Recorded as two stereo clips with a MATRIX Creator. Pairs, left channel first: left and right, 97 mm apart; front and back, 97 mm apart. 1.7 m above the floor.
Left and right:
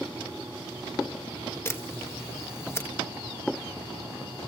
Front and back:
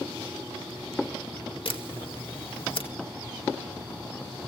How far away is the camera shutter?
About 2 m.